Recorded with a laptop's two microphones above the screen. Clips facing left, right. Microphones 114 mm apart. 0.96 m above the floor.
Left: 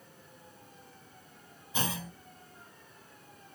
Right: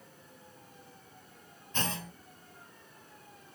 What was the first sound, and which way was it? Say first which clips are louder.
A clunk: left 1 dB; 10° left (ahead or behind).